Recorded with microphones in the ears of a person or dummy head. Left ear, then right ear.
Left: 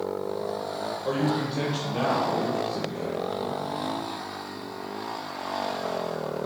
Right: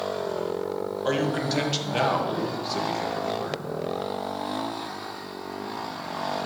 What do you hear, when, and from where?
1.1 s a man speaking: 60° right (ahead or behind), 1.9 m